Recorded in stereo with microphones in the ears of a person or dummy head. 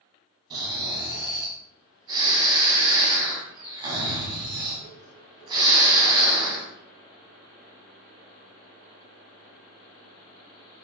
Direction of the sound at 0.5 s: 25° right (ahead or behind).